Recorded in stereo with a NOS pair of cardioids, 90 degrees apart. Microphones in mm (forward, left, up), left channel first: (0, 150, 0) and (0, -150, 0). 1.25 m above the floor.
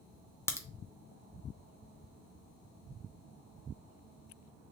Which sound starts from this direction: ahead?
A crack, at 0.5 s.